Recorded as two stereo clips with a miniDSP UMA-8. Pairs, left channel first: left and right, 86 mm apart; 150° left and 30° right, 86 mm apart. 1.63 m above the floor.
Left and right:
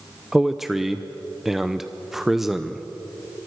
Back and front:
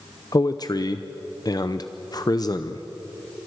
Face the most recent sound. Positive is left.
turn(degrees=-175)